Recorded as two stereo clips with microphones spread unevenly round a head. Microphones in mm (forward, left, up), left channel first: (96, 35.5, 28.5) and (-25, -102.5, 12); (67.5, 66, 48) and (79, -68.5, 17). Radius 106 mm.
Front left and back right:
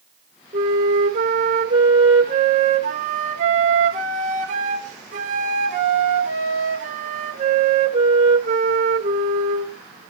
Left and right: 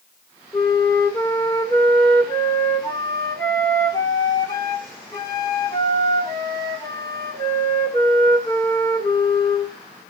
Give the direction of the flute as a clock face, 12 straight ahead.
6 o'clock.